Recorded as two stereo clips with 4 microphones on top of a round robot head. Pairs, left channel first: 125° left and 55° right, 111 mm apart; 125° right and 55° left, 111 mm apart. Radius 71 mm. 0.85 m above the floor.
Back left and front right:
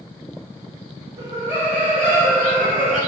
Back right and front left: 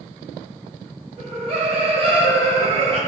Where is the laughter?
15° left, 2 m; by 3.0 s 30° left, 1.4 m.